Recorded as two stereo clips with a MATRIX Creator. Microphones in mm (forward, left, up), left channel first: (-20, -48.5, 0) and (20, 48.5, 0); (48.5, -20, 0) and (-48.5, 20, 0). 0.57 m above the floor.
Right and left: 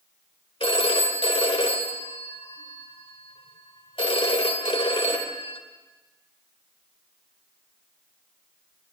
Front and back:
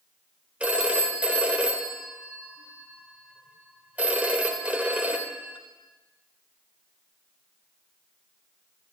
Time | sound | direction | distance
0.6 | a phone ringing | 125° right | 1.4 m